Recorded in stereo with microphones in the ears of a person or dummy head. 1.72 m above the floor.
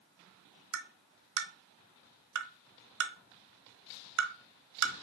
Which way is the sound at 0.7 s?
85° right.